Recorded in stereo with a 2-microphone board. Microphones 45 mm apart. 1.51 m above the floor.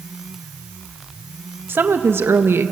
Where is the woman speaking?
50° right (ahead or behind), 1.5 m; by 2.7 s 65° right (ahead or behind), 1.2 m.